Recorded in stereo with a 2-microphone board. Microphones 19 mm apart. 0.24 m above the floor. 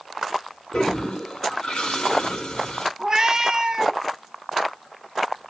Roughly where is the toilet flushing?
Left.